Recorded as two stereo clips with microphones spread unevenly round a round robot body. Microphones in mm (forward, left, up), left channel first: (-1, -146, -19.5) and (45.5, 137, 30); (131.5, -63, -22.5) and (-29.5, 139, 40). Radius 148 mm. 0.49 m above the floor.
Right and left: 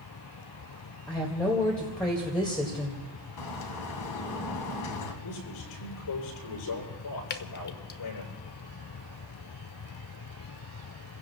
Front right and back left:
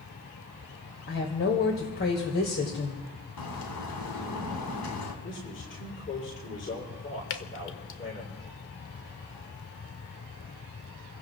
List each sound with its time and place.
1.1 s a woman speaking: 20° right, 2.5 m
3.4 s a bird: 80° right, 2.5 m
5.2 s a man speaking: 105° right, 10 m
7.3 s dripping: 60° right, 0.9 m